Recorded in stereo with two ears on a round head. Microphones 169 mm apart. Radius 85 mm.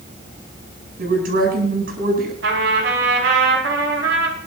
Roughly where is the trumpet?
Right.